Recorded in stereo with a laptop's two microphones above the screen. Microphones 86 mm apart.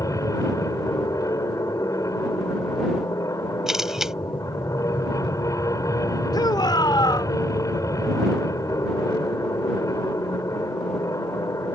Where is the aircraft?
40° left (ahead or behind).